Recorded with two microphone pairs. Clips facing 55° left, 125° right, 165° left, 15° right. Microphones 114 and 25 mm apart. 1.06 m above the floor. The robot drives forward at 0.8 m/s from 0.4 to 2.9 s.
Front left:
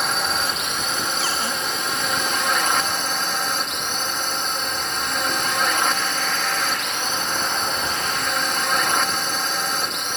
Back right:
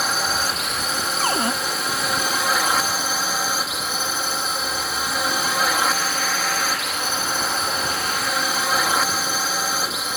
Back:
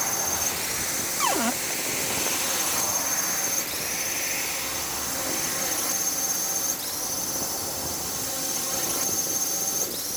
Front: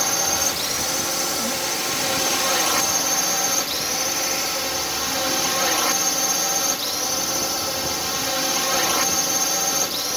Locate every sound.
0.0 s a drone: 40° right
1.2 s a cupboard door: 170° right; by 1.5 s 175° right